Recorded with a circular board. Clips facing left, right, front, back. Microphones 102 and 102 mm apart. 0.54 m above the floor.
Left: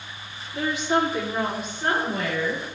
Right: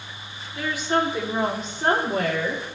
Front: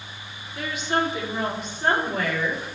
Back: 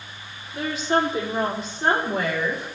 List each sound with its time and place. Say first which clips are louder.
0.5 s a woman speaking: left 1 dB, back 3 dB; 135° left, 1.4 m; by 2.6 s 115° right, 2.5 m